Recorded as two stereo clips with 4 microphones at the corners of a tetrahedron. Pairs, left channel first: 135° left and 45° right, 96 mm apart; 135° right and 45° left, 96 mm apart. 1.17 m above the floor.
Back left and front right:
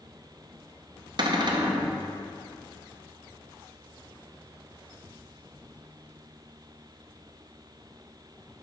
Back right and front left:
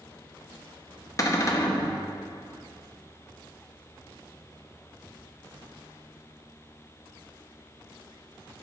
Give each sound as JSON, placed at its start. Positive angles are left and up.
{"t": 1.2, "sound": "a cupboard door", "azimuth_deg": -80, "distance_m": 0.7}